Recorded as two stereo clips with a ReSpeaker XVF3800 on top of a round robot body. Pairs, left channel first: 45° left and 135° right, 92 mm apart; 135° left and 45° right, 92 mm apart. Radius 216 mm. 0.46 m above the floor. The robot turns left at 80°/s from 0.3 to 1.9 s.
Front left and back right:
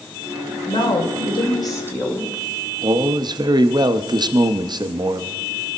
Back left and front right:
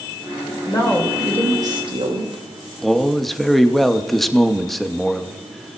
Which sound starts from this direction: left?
A woman speaking, at 0.7 s.